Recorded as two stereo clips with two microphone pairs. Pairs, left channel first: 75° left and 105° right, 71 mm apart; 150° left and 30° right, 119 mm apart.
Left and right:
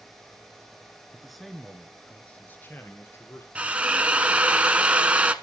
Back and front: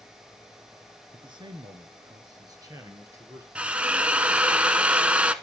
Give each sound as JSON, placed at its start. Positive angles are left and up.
{"t": 1.1, "sound": "a man speaking", "azimuth_deg": -25, "distance_m": 1.7}
{"t": 3.5, "sound": "a drill", "azimuth_deg": -85, "distance_m": 0.8}